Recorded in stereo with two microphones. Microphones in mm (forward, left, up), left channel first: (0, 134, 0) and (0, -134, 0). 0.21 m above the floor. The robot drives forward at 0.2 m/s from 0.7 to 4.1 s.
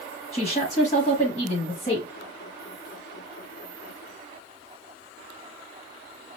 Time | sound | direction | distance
0.3 | a woman speaking | 25° left (ahead or behind) | 1.1 m